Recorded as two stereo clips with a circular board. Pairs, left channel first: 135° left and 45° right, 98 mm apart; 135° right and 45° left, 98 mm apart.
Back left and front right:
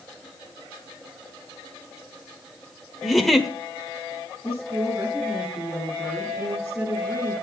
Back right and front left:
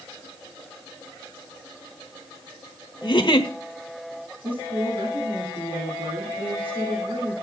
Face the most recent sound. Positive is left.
turn(degrees=20)